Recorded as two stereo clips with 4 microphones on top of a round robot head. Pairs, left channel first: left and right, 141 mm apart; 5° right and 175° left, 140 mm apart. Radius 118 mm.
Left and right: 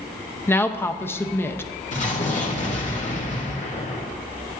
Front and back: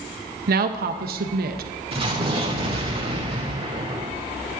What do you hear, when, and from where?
0.5 s a woman speaking: 165° left, 0.7 m
1.9 s an explosion: 125° left, 1.7 m